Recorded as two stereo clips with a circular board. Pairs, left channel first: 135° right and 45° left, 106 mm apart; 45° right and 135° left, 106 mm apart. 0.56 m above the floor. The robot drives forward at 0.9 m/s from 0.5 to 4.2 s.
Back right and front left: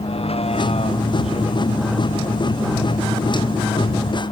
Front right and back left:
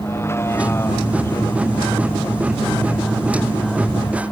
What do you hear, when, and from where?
0.0 s a vehicle: 110° right; by 4.3 s 115° right